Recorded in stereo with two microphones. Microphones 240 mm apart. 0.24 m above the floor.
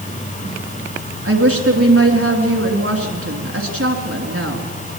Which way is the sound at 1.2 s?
65° right (ahead or behind).